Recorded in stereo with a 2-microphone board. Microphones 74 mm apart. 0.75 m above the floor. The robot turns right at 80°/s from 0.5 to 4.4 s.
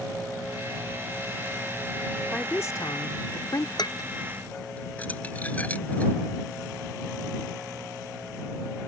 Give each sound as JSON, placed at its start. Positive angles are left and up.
{"t": 2.3, "sound": "a woman speaking", "azimuth_deg": 20}
{"t": 3.8, "sound": "dishes clattering", "side_deg": 70}